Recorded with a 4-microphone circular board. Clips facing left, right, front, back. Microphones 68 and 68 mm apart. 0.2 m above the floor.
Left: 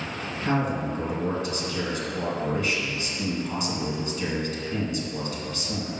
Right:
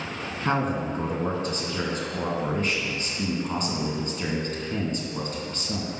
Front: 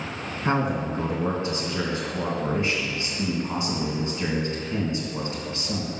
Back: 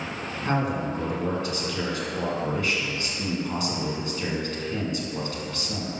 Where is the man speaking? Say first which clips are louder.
Even, front 2 dB; 55° right, 1.8 m.